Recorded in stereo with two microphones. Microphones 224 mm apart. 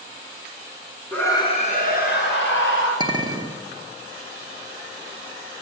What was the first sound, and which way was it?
A scream, 5° left (ahead or behind).